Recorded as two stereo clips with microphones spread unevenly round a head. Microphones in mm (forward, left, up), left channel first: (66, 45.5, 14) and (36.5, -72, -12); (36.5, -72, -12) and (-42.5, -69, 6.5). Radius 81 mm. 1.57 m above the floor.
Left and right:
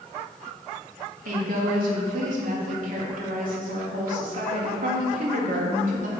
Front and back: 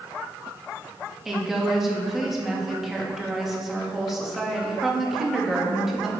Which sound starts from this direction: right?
A woman speaking, at 1.2 s.